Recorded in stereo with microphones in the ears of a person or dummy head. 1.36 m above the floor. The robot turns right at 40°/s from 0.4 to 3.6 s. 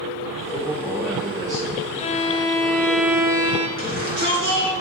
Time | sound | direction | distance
0.5 | a man speaking | 160° left | 3.5 m
2.0 | a violin | 145° left | 0.8 m
3.8 | a shout | 65° right (ahead or behind) | 5 m